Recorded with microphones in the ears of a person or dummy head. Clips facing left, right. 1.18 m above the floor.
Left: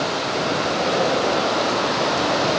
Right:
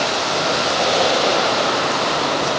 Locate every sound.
Only background noise.